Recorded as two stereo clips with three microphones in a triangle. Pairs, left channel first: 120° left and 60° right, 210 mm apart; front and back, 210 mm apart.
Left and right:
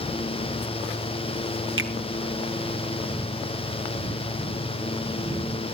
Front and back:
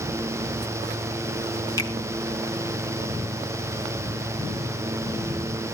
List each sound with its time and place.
1.8 s a finger snap: 70° right, 2.5 m